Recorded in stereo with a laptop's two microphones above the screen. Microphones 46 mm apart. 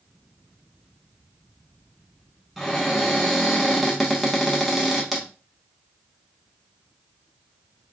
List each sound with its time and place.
2.6 s a cupboard door: centre (ahead or behind), 0.9 m